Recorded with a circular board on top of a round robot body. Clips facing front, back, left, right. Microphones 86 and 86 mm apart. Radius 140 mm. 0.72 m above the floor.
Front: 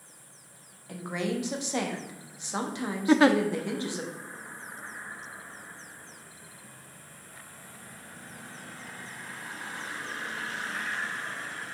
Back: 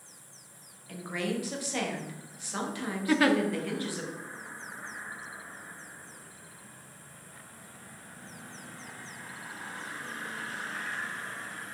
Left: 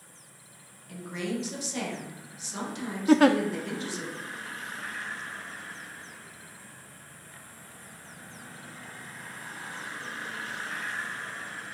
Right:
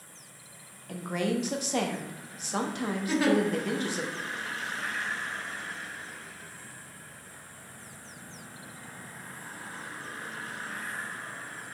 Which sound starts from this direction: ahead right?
A woman speaking, at 0.9 s.